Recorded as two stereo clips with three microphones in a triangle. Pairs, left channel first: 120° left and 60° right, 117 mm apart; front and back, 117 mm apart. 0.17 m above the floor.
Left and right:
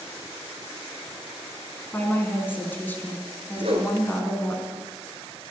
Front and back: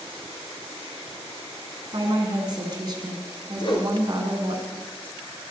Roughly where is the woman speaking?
Behind.